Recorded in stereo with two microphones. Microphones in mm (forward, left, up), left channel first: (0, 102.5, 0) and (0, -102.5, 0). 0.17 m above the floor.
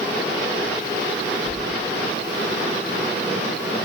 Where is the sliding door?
25° right (ahead or behind), 2.5 m.